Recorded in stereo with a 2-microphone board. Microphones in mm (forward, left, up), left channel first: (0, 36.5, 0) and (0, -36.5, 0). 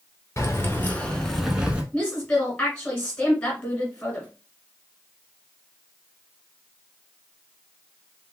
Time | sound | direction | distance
0.4 | keys jangling | 40° left (ahead or behind) | 1.3 m
1.9 | a woman speaking | 15° left (ahead or behind) | 1.7 m